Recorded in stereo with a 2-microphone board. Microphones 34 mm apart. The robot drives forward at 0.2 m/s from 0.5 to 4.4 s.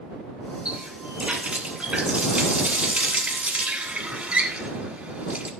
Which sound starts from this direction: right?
A running tap, at 0.7 s.